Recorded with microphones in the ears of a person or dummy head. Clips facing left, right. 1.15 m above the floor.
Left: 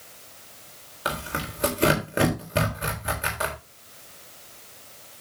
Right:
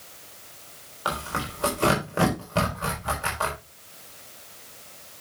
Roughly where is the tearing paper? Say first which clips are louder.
Even; centre.